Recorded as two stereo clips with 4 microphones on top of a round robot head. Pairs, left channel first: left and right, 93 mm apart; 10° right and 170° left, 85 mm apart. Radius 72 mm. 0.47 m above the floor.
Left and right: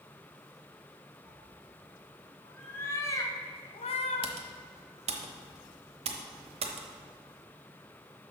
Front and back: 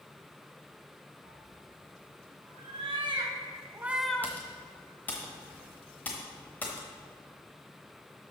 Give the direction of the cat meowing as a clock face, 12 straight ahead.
6 o'clock.